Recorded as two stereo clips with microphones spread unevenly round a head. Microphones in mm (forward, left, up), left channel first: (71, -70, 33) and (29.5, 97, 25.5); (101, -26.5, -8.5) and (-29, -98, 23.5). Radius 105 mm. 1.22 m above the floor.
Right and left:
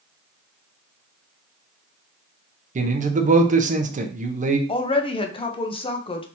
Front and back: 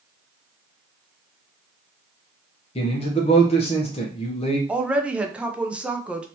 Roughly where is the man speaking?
Left.